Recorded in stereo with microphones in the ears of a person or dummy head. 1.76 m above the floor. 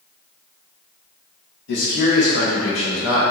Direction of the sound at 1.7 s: 50° left (ahead or behind).